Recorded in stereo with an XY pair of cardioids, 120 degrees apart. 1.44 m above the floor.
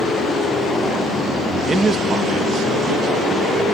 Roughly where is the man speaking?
Ahead right.